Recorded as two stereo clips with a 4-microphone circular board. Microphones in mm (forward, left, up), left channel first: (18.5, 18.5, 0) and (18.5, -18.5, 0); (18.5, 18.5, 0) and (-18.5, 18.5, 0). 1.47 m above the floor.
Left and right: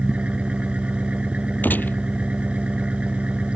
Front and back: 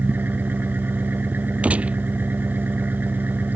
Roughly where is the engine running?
Behind right.